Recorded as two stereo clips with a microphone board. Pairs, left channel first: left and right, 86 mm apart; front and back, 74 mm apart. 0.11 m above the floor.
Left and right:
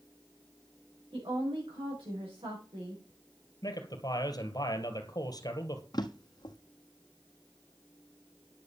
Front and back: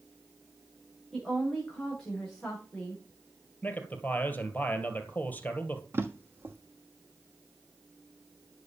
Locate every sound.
1.1 s a woman speaking: 80° right, 8.5 m
3.6 s a man speaking: 60° left, 2 m
5.9 s a drawer: 125° left, 1.2 m